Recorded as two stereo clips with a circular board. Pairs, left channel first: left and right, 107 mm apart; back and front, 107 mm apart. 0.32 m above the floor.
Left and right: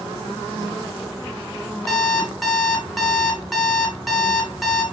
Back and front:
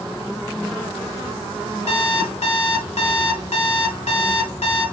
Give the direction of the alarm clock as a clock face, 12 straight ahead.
6 o'clock.